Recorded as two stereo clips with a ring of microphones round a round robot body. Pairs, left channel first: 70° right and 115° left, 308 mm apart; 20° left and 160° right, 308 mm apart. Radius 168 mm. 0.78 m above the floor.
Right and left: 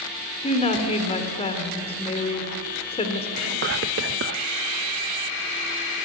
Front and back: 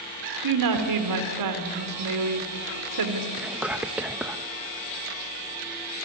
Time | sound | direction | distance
0.4 | a woman speaking | 140° right | 2.5 m
3.4 | whispering | 120° left | 0.6 m